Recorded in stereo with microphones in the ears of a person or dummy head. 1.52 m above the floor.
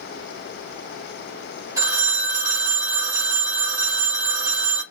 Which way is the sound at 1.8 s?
15° right (ahead or behind).